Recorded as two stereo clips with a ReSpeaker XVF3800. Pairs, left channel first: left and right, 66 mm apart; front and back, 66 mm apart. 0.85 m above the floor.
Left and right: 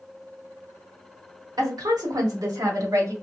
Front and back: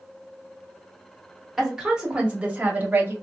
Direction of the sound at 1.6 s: 95° right.